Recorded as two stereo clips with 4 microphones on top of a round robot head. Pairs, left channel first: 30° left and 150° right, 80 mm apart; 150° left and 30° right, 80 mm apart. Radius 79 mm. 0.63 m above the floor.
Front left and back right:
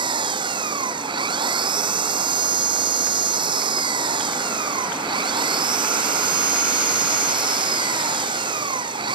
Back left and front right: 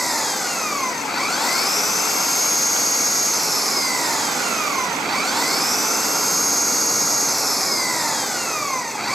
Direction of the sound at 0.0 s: 125° right.